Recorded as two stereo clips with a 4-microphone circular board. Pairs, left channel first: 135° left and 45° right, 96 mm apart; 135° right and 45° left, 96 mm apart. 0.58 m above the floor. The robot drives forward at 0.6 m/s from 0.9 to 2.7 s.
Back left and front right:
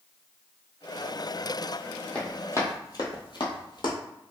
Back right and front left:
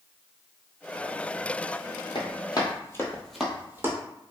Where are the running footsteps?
150° right, 1.0 m; by 4.0 s 100° left, 1.0 m.